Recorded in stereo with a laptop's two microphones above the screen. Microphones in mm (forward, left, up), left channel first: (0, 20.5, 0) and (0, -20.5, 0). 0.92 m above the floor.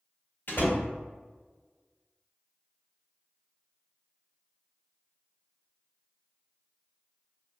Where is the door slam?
50° left (ahead or behind), 1.4 m.